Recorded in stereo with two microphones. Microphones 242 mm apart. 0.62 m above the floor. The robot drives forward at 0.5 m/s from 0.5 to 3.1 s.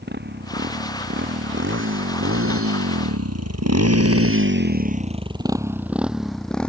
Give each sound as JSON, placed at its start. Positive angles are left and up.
{"t": 0.0, "sound": "a motorcycle", "side_deg": -45}